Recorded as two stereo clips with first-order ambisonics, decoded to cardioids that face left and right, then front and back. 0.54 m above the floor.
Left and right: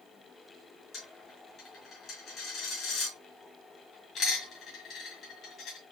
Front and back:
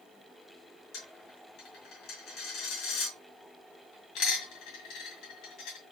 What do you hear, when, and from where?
0.9 s a dropped coin: 40° left, 1.7 m